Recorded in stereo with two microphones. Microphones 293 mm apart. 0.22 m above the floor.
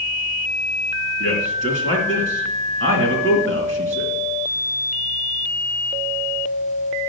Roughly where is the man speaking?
Right.